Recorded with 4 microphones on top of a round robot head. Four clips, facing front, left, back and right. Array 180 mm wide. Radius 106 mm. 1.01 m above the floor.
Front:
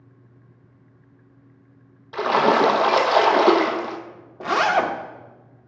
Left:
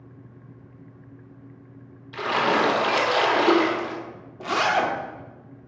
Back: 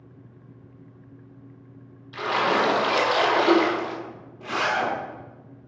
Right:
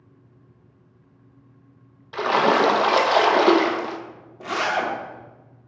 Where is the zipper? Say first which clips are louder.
Left 2 dB, front 6 dB; 10° left, 0.9 m.